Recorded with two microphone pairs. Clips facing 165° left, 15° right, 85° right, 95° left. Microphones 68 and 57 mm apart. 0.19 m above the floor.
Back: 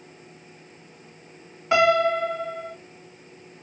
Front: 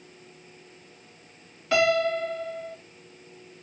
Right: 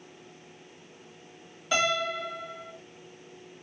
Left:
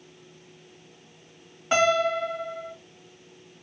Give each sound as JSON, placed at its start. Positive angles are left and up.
{"t": 1.7, "sound": "a piano", "azimuth_deg": 115, "distance_m": 1.8}